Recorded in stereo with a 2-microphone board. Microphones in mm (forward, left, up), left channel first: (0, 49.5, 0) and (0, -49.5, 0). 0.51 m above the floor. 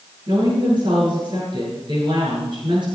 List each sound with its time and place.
0.3 s a woman speaking: 50° right (ahead or behind), 10 m